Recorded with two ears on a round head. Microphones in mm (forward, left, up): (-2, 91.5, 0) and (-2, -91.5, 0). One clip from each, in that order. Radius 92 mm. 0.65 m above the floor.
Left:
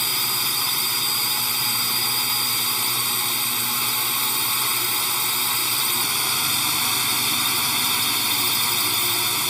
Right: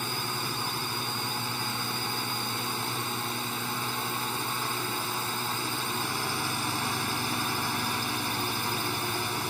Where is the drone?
75° left (ahead or behind).